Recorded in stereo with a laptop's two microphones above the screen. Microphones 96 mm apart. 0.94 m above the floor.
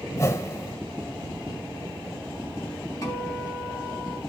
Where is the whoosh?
30° left (ahead or behind), 0.8 m.